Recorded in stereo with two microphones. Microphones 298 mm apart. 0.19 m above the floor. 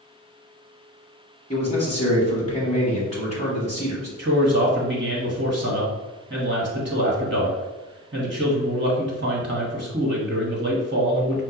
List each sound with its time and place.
1.5 s a man speaking: 20° left (ahead or behind), 1.1 m
4.2 s a man speaking: 40° right (ahead or behind), 1.3 m